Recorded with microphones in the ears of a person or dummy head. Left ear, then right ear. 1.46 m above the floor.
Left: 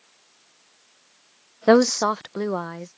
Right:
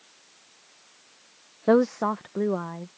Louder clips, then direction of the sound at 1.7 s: Left 5 dB; 75° left (ahead or behind).